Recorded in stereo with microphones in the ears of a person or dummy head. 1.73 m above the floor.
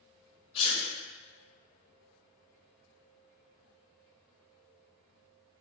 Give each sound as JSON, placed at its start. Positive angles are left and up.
{"t": 0.6, "sound": "a sneeze", "side_deg": 30, "distance_m": 0.8}